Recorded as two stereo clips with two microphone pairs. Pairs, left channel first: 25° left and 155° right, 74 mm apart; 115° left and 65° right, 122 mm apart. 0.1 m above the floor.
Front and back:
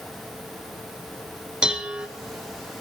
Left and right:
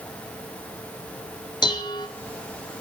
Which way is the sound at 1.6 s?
135° left.